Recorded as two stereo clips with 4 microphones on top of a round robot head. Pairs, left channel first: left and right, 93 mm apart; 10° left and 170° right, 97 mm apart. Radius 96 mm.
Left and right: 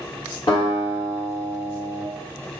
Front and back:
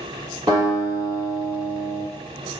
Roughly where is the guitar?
Behind left.